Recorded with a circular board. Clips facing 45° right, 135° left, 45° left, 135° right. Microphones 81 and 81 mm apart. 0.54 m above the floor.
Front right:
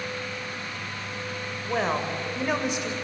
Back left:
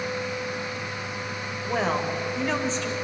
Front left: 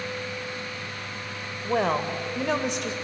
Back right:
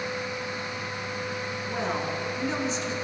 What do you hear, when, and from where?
1.6 s a woman speaking: 45° left, 2 m; by 2.9 s 25° left, 2 m